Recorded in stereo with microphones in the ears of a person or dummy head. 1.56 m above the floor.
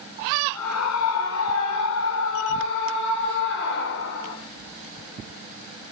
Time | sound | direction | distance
0.5 | a scream | 85° left | 5 m